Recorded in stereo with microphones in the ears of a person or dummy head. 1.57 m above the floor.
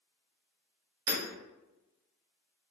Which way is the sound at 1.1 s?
65° right (ahead or behind).